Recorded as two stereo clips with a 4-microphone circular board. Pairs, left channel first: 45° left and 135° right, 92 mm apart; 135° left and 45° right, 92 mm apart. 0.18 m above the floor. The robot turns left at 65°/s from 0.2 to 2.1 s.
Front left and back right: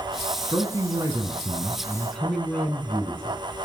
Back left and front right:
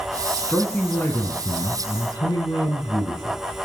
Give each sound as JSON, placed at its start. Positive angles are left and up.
{"t": 0.4, "sound": "a man speaking", "azimuth_deg": -125, "distance_m": 1.8}